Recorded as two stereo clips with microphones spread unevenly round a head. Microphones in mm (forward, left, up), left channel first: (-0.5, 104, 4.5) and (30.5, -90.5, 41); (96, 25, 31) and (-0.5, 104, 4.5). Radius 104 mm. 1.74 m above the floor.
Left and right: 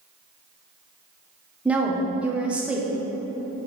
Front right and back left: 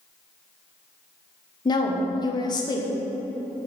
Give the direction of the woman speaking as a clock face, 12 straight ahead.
12 o'clock.